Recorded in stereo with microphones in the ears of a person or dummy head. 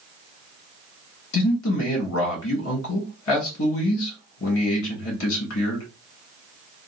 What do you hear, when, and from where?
1.3 s a man speaking: 60° left (ahead or behind), 1.3 m